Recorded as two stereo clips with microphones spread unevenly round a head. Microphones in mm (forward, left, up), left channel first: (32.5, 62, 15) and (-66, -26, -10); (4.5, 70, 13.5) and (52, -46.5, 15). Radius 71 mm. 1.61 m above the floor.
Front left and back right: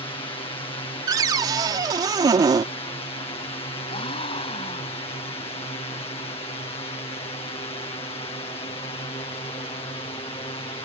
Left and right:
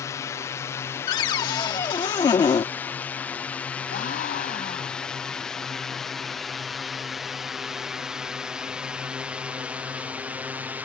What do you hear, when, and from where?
0.0 s a drone: 70° left; by 10.8 s straight ahead
1.1 s a cupboard door: 160° left
3.9 s a gasp: 90° left